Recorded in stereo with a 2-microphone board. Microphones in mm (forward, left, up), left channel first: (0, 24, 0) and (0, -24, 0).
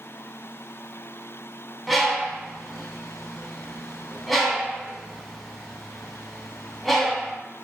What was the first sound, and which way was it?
A bird, 5° left (ahead or behind).